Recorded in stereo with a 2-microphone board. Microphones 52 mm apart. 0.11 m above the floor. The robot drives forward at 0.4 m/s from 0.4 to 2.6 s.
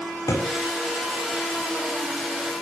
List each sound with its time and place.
0.3 s a thud: 85° left, 6.5 m